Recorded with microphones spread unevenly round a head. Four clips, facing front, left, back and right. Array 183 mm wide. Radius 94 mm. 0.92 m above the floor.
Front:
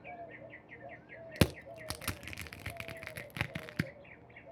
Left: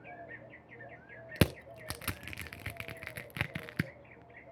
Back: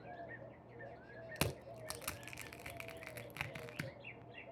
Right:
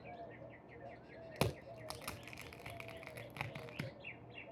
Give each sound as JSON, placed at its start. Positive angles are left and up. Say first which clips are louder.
{"t": 1.4, "sound": "crushing", "louder": "left 8 dB, front 10 dB", "azimuth_deg": 55, "distance_m": 0.7}